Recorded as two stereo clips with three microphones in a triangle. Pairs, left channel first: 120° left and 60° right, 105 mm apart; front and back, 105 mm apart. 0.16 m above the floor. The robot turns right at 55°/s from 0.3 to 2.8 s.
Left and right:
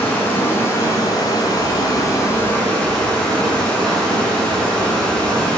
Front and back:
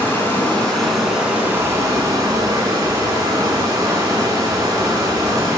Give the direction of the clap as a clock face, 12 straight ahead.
No clap in this recording.